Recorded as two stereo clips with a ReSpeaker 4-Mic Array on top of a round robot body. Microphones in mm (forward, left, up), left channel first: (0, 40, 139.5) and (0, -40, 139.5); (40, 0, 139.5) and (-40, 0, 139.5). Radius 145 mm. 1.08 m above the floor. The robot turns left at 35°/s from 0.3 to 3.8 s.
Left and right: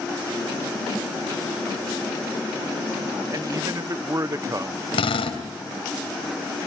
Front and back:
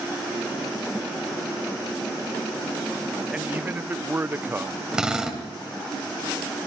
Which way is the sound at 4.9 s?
100° left.